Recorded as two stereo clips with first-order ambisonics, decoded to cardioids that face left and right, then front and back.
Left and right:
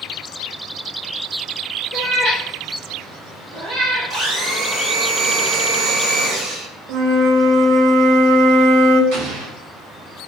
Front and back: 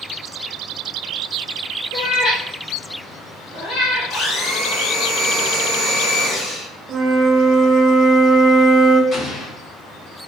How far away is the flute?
About 0.6 m.